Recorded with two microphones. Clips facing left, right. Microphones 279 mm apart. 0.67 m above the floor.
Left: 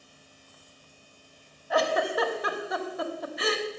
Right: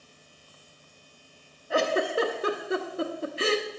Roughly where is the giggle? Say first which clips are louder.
Right 1 dB; right.